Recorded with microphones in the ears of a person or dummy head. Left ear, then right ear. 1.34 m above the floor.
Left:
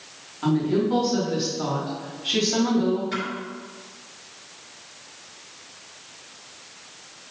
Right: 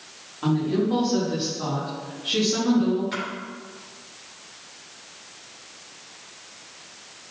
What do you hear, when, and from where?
0.4 s a woman speaking: centre (ahead or behind), 3 m; by 3.0 s 25° left (ahead or behind), 3 m
3.1 s a splash: 5° right (ahead or behind), 2.5 m